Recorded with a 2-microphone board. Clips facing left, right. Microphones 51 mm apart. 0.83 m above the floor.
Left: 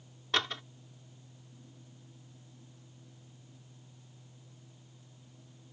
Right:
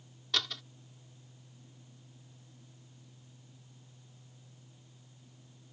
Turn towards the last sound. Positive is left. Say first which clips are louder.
# left 4 dB
turn(degrees=30)  # may be behind; listen again after turning